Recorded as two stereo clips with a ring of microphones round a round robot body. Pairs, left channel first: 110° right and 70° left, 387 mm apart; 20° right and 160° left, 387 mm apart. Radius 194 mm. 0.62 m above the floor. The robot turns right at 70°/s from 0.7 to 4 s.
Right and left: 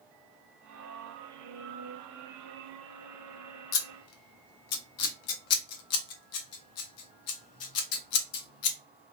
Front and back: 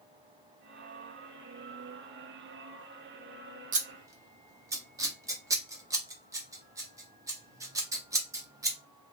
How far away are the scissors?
About 0.6 m.